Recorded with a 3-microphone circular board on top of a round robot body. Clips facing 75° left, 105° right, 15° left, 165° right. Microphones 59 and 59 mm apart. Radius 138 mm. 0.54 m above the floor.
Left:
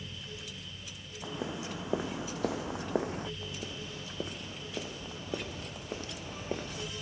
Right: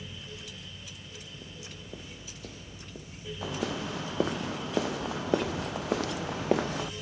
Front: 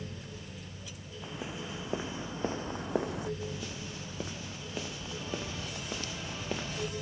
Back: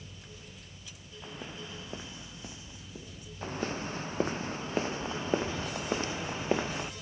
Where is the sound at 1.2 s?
100° left; by 3.3 s 40° left.